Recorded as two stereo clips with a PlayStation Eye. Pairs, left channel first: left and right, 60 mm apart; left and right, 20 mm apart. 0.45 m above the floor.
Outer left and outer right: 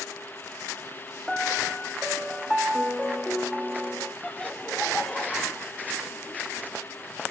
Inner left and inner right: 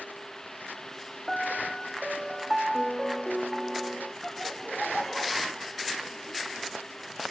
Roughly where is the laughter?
Centre.